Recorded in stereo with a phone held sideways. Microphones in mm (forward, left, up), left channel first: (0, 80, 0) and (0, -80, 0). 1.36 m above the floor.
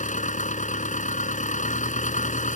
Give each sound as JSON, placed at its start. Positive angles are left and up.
{"t": 0.0, "sound": "an engine running", "side_deg": 50}